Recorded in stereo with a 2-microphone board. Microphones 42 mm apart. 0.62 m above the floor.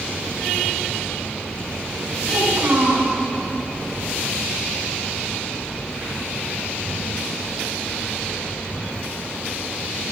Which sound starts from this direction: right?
A child speaking, at 2.3 s.